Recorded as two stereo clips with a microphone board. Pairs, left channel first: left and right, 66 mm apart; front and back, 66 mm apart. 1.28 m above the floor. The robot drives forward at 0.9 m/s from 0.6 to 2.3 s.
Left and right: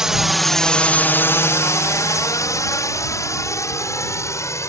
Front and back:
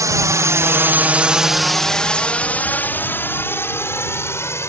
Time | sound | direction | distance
0.0 | a drone | 170° right | ?